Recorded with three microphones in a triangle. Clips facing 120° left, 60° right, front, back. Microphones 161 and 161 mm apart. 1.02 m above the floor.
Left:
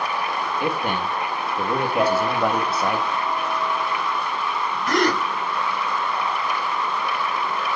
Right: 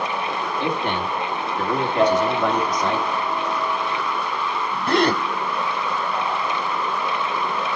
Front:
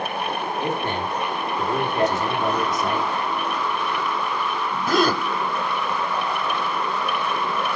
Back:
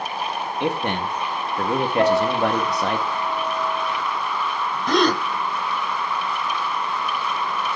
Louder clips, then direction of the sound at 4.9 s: Right 2 dB, back 1 dB; 75° right.